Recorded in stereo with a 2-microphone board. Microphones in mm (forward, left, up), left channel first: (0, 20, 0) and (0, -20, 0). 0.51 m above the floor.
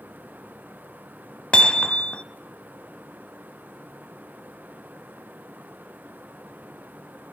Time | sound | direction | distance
1.5 | hammering | 25° left (ahead or behind) | 0.8 m